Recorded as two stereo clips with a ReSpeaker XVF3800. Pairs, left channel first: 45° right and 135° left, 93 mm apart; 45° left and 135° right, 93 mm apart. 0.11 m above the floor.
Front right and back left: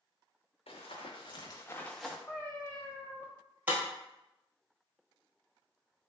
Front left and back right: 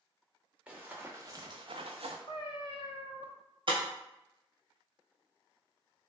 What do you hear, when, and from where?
0.7 s running footsteps: 60° right, 0.9 m; by 2.2 s 145° right, 0.6 m
2.3 s a cat meowing: 25° left, 0.5 m
3.7 s breaking glass: 155° right, 1.1 m